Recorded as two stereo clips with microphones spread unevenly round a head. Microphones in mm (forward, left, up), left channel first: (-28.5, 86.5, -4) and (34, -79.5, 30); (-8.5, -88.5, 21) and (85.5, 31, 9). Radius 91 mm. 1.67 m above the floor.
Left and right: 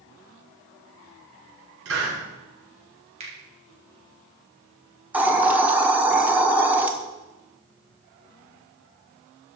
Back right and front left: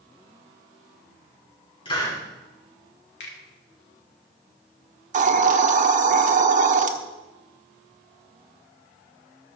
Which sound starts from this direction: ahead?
A hiss, at 5.1 s.